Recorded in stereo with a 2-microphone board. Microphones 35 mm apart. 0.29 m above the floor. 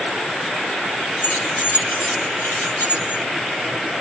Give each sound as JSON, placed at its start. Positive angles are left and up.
{"t": 1.2, "sound": "keys jangling", "side_deg": 70, "distance_m": 3.0}